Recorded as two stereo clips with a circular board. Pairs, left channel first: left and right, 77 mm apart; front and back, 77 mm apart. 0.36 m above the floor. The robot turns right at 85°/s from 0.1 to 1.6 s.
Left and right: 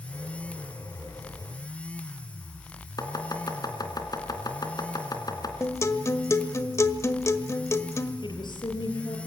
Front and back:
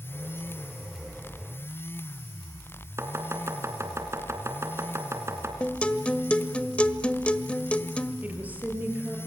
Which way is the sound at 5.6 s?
65° left.